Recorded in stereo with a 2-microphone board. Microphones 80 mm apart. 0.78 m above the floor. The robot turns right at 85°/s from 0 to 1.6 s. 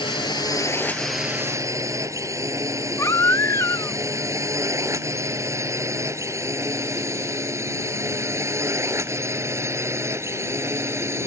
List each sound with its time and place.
0.0 s a drone: 85° left; by 11.3 s 35° right (ahead or behind)
3.0 s a baby crying: 40° left (ahead or behind)